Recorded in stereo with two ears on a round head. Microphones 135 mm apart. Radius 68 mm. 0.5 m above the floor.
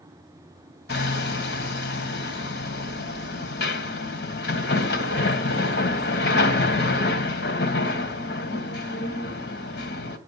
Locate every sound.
0.9 s hammering: 75° left (ahead or behind), 2 m